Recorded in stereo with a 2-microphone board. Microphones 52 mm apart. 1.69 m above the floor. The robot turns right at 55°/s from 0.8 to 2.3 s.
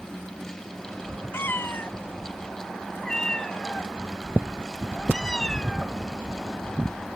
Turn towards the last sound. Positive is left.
turn(degrees=15)  # may be behind; listen again after turning